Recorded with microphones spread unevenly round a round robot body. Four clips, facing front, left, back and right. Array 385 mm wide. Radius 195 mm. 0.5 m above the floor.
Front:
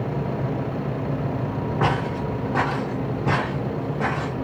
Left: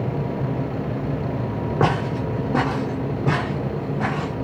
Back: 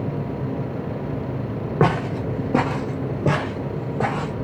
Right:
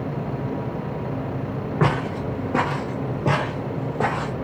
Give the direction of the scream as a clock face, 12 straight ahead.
No scream in this recording.